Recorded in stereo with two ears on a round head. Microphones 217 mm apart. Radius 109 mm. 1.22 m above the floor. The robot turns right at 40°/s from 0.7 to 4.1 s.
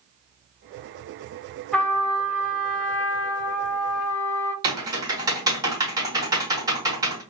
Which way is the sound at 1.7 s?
5° left.